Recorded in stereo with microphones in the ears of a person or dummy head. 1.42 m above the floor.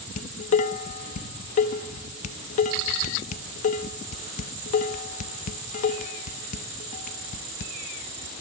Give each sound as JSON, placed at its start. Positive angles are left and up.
{"t": 0.2, "sound": "dishes clattering", "side_deg": 40, "distance_m": 1.1}